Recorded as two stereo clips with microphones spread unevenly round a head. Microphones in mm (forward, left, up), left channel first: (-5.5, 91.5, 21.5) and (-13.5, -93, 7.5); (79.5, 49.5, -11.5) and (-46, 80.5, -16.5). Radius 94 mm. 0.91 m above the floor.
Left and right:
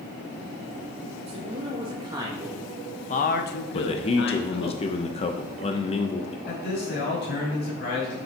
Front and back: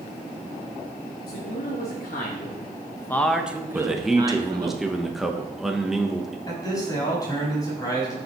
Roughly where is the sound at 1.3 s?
Ahead right.